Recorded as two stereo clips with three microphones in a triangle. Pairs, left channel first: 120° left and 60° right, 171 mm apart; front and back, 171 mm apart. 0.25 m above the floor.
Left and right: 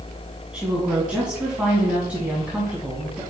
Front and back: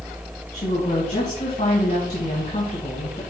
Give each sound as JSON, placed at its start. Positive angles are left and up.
{"t": 0.5, "sound": "a woman speaking", "azimuth_deg": 20, "distance_m": 2.0}